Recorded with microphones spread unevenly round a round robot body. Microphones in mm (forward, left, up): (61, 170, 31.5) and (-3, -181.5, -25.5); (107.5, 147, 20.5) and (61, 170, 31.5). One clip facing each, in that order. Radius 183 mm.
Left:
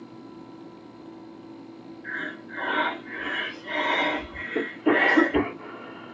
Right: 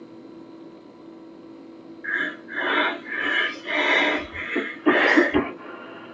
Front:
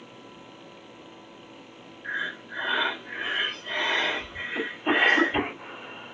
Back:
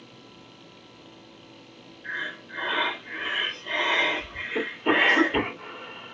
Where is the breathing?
140° right, 0.9 m.